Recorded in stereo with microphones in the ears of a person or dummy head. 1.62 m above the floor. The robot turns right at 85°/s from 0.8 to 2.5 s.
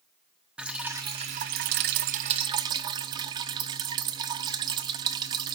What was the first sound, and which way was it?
Dripping, 5° right (ahead or behind).